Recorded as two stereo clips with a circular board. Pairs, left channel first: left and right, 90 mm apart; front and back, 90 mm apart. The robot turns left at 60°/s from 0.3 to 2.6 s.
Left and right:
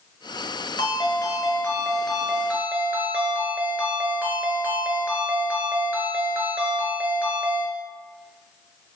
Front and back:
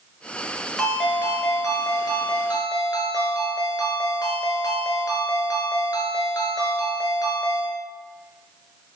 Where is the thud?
No thud in this recording.